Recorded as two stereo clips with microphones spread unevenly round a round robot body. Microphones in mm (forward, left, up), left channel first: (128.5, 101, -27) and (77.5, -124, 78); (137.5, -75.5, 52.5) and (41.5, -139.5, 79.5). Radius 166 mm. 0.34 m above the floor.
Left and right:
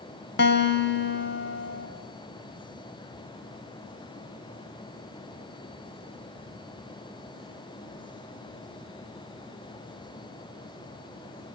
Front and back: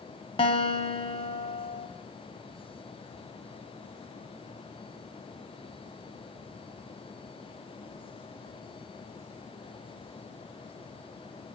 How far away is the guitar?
About 2.5 m.